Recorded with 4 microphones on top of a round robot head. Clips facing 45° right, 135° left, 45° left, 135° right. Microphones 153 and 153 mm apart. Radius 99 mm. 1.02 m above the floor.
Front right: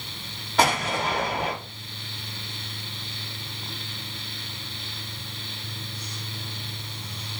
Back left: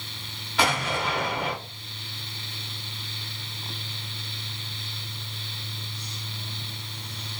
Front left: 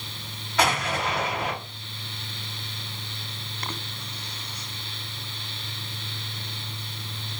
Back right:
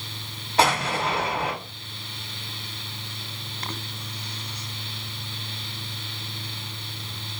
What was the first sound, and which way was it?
An explosion, 80° right.